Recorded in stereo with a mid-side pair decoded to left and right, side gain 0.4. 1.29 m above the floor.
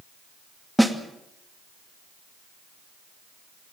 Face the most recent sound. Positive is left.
turn(degrees=-5)